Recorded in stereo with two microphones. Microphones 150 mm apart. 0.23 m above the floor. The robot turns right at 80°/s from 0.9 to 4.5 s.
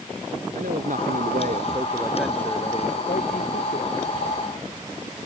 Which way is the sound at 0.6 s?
105° right.